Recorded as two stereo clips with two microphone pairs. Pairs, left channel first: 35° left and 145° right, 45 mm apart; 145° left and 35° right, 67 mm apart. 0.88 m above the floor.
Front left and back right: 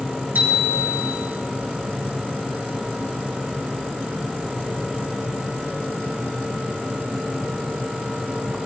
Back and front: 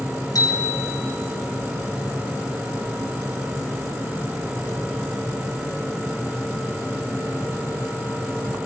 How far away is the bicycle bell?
About 5 m.